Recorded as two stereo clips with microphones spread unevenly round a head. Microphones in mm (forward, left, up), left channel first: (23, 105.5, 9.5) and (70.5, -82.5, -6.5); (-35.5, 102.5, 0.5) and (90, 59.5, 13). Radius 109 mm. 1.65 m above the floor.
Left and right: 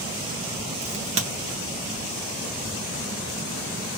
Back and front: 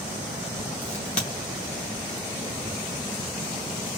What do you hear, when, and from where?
0.8 s a crack: 140° right, 0.8 m